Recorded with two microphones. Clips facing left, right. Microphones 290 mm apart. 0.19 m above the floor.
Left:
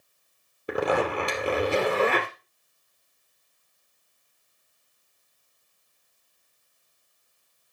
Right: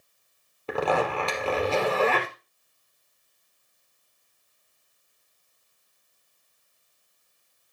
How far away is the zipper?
About 2.5 m.